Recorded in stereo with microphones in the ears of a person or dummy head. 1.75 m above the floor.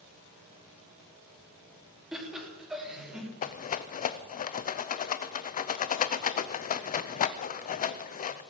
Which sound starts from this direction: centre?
Laughter, at 2.1 s.